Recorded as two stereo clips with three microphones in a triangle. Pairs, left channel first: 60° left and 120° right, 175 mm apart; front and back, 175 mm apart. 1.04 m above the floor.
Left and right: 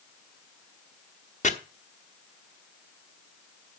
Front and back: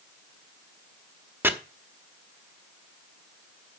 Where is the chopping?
100° left, 1.0 m.